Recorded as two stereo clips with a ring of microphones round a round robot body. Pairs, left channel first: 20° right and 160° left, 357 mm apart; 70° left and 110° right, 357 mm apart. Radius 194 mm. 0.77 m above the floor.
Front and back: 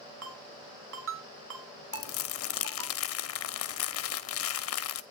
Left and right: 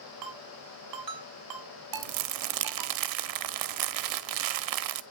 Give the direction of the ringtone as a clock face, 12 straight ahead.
5 o'clock.